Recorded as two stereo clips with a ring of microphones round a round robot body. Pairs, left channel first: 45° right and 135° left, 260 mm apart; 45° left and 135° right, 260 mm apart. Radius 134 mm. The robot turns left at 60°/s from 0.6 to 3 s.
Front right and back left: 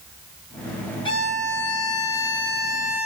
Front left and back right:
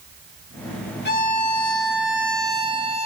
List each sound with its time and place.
1.1 s a violin: 20° left, 0.9 m; by 3.1 s 100° right, 0.9 m